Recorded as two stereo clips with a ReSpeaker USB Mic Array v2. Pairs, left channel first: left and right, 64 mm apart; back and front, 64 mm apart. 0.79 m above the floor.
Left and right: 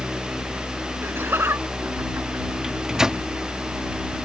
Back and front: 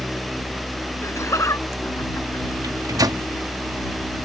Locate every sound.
1.0 s laughter: 145° right
2.6 s a microwave: 10° right